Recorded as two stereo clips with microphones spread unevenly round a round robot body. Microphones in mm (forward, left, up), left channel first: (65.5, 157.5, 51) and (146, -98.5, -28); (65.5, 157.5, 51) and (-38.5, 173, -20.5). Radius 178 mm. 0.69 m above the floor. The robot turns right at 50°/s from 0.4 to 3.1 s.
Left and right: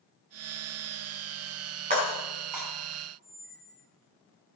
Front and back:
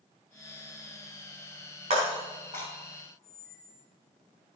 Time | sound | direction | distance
1.9 | breaking glass | 145° right | 3.5 m
3.2 | a squeak | 115° right | 3 m